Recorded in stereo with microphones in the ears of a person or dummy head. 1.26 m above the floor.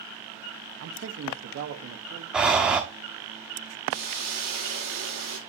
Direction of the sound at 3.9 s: 80° right.